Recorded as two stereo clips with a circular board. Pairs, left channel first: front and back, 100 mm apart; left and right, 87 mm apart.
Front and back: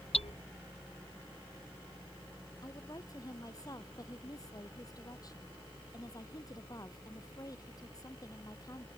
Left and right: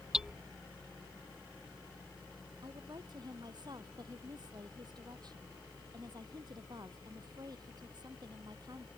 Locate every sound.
0.1 s hammering: 10° right
2.6 s a woman speaking: 55° right